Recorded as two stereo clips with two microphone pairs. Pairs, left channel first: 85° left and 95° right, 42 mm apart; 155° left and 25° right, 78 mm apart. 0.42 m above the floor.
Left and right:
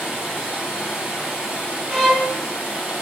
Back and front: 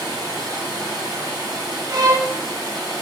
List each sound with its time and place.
0.0 s running water: 25° right, 1.5 m
1.9 s a violin: 25° right, 0.5 m